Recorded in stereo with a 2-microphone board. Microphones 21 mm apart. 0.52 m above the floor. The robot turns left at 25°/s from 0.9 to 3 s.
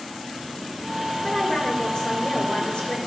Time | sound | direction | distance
1.2 | a woman speaking | 145° left | 2 m